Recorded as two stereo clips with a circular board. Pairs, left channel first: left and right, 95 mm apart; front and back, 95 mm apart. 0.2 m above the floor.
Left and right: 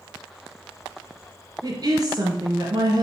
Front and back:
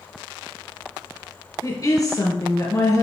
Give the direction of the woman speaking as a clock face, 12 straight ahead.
2 o'clock.